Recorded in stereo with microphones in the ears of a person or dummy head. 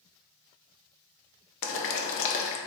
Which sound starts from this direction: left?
Boiling, at 1.6 s.